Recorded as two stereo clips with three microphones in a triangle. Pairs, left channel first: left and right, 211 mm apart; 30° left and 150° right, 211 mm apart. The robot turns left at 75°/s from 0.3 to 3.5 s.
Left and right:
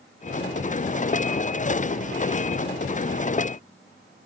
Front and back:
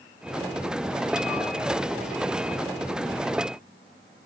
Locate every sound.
Only background noise.